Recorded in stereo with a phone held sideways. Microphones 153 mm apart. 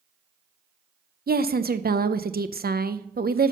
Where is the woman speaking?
75° right (ahead or behind), 0.7 m.